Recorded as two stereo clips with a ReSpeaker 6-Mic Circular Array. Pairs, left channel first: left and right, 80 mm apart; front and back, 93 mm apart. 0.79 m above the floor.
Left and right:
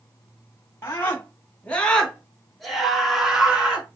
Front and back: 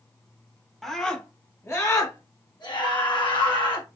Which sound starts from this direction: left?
A scream, at 0.8 s.